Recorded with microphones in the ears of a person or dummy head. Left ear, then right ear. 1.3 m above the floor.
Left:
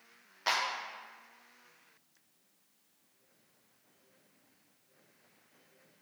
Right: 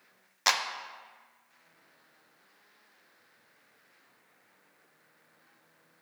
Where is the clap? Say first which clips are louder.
Right 4 dB; 70° right (ahead or behind), 0.5 m.